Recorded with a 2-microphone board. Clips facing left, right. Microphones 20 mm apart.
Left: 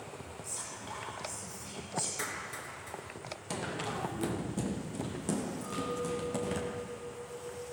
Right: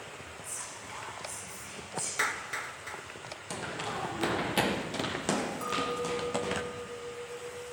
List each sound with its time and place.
0.4 s whispering: 35° left (ahead or behind), 4.5 m
2.2 s a clap: 35° right (ahead or behind), 1.7 m
3.5 s running footsteps: centre (ahead or behind), 1.3 m; by 6.6 s 35° right (ahead or behind), 2.5 m
5.6 s a clink: 75° right (ahead or behind), 3.5 m